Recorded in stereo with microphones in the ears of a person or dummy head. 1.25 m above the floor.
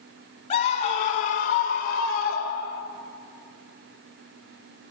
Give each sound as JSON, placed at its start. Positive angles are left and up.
{"t": 0.5, "sound": "a scream", "side_deg": 35, "distance_m": 1.2}